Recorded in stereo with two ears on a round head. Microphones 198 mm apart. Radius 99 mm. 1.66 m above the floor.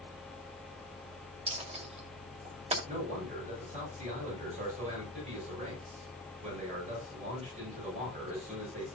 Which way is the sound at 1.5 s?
30° right (ahead or behind).